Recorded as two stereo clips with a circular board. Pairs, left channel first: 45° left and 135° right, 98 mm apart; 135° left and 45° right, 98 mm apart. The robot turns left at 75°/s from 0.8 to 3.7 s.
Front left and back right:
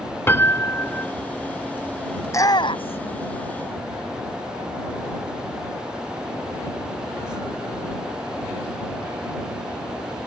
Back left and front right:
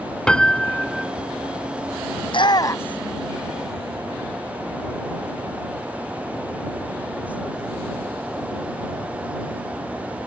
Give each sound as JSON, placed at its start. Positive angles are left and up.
{"t": 0.3, "sound": "a piano", "azimuth_deg": 65}
{"t": 2.2, "sound": "a shout", "azimuth_deg": 110}